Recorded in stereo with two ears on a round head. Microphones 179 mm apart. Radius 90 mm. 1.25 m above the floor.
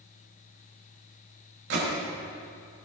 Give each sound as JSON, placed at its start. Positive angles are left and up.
{"t": 1.7, "sound": "a gunshot", "side_deg": -70, "distance_m": 5.5}